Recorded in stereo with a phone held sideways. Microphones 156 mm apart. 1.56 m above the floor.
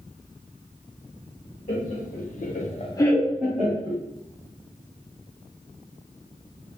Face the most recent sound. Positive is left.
turn(degrees=-25)  # may be behind; listen again after turning